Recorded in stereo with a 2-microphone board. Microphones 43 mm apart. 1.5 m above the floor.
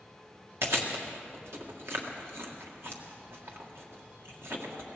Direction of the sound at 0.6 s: 70° right (ahead or behind).